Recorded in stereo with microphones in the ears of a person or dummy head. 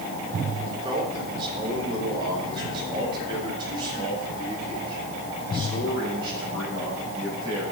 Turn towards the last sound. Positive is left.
turn(degrees=-25)  # may be behind; listen again after turning